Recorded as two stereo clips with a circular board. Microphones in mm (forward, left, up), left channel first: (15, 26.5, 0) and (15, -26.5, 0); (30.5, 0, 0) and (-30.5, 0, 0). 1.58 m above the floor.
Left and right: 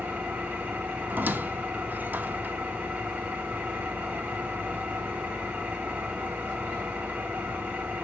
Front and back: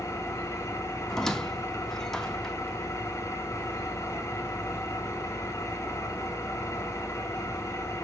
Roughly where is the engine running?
Ahead right.